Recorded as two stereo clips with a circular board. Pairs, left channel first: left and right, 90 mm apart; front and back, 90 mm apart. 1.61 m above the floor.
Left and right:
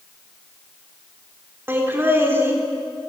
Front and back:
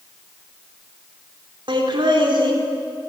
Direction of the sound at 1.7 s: 155° right.